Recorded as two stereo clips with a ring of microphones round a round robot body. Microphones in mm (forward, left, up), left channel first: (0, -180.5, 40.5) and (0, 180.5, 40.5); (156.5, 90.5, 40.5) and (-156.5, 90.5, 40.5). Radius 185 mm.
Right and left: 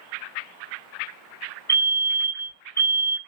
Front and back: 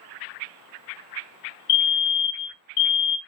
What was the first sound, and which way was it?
A fire alarm, 15° right.